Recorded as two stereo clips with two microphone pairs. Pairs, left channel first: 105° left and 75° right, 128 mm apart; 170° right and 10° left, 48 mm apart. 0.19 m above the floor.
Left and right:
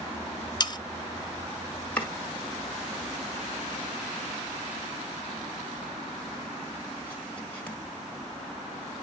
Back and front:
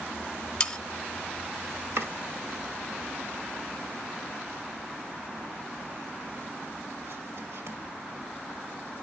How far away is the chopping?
About 1.8 m.